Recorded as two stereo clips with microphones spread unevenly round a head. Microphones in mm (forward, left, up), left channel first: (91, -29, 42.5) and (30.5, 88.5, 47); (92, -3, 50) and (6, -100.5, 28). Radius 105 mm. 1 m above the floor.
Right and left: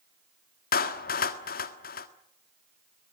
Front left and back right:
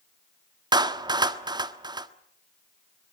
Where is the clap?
75° right, 1.5 m.